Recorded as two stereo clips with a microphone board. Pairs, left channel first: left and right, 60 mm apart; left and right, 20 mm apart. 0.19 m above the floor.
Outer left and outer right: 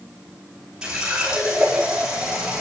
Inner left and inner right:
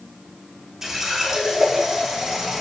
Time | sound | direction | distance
0.8 | a running tap | 10° right (ahead or behind) | 6 m